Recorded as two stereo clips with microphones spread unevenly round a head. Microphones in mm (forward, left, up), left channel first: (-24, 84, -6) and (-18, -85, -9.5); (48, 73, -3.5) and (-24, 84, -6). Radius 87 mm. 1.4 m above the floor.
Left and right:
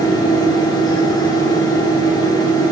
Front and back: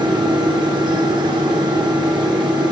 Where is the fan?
160° left, 1.0 m.